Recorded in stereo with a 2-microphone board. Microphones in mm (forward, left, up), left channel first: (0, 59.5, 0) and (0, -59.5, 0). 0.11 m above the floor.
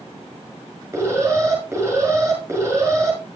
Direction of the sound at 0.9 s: 25° right (ahead or behind).